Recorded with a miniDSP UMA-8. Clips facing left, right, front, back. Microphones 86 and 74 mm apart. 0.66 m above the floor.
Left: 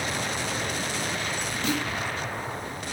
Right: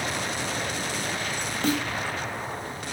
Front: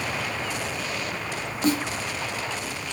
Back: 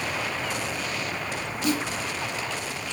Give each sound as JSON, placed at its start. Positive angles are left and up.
{"t": 1.6, "sound": "a snare drum", "azimuth_deg": -45, "distance_m": 0.7}